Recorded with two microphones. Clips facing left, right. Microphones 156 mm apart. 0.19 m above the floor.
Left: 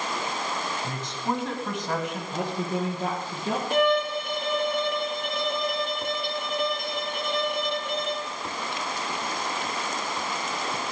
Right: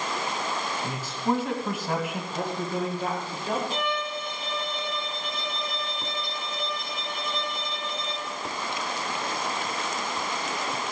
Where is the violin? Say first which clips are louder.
Left 8 dB; 65° left (ahead or behind), 0.8 m.